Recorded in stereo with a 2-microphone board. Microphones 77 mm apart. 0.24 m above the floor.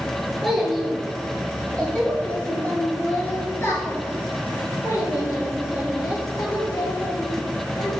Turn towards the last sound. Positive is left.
turn(degrees=60)  # may be behind; listen again after turning